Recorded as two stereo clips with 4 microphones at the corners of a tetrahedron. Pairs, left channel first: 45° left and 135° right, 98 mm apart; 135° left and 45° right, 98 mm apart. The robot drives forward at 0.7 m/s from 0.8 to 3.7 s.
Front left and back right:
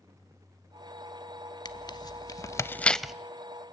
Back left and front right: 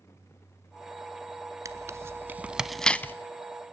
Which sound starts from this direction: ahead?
Tearing paper, at 1.6 s.